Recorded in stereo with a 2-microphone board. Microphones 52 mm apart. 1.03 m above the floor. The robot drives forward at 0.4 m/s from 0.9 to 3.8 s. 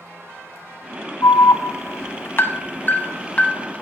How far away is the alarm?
About 0.5 m.